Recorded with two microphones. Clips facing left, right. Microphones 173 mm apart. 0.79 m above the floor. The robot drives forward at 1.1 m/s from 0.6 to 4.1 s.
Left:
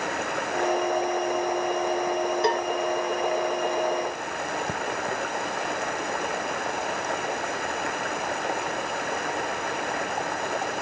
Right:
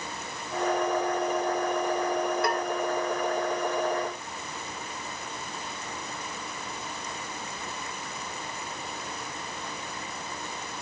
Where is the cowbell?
30° left (ahead or behind).